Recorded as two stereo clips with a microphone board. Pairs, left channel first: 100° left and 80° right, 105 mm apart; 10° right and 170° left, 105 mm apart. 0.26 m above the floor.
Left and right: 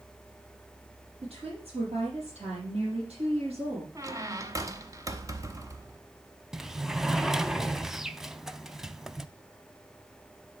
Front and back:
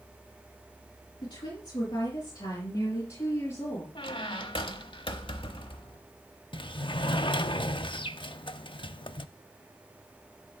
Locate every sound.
1.2 s a woman speaking: 50° right, 5 m; by 3.9 s 70° right, 4 m
4.0 s a squeak: 30° right, 0.9 m
6.5 s a sliding door: 5° left, 0.5 m